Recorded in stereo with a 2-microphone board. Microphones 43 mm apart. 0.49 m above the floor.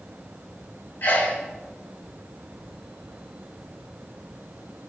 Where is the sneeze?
60° left (ahead or behind), 3 m.